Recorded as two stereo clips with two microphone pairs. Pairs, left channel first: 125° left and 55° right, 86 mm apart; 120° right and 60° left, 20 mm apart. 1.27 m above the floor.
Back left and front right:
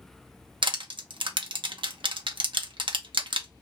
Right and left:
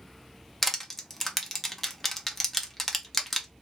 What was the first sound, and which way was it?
Crushing, 40° right.